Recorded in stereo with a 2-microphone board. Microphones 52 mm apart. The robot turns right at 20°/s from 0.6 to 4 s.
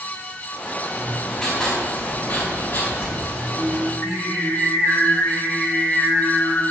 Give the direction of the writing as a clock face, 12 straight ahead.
12 o'clock.